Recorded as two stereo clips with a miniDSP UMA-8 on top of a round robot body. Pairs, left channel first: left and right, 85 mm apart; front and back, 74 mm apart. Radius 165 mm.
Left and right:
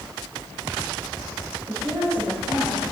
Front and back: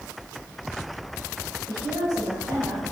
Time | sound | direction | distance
1.7 | a woman speaking | 155° right | 4.5 m